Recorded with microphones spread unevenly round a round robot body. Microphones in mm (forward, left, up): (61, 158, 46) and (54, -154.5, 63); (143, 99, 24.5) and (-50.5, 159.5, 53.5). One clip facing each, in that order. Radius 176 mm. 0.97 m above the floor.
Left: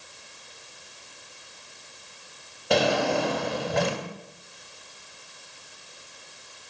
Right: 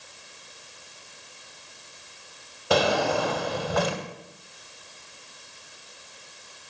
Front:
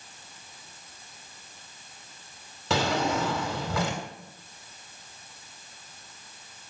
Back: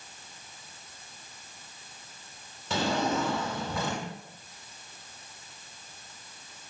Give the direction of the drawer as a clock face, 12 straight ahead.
12 o'clock.